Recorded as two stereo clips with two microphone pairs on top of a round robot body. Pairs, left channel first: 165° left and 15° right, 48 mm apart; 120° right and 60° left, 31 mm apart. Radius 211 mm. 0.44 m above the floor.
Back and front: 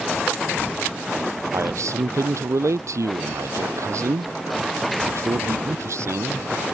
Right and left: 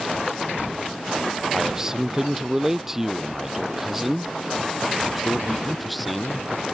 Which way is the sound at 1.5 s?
10° right.